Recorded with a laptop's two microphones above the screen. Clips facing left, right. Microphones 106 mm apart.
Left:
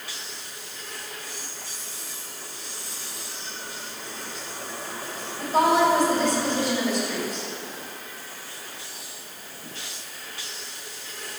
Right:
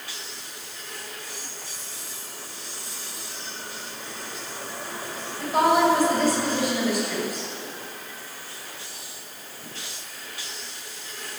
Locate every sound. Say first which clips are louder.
5.4 s a woman speaking: even; 5° right (ahead or behind), 6.5 m